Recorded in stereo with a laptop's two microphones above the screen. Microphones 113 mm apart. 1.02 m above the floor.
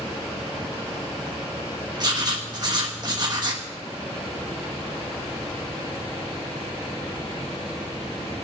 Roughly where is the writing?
Right.